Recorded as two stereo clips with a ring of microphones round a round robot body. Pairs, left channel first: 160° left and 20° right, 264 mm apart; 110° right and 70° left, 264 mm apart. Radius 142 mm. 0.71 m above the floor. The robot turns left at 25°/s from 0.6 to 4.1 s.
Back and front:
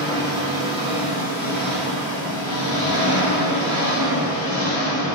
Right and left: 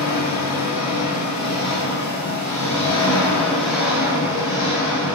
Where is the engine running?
125° right, 1.6 m; by 5.2 s 145° left, 1.6 m.